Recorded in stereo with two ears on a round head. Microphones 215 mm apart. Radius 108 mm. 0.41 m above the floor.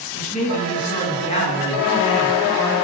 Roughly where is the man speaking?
Left.